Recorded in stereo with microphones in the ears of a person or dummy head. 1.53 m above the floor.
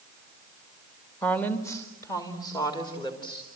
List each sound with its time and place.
1.2 s a woman speaking: 5° left (ahead or behind), 1.7 m; by 3.5 s 25° left (ahead or behind), 4 m